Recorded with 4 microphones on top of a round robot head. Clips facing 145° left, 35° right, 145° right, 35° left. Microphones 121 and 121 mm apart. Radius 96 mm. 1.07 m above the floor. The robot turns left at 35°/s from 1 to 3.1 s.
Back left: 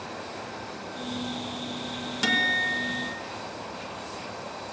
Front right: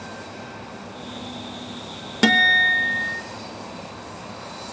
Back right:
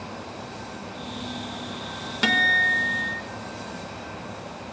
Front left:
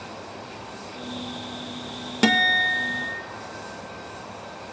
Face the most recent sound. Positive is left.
turn(degrees=-45)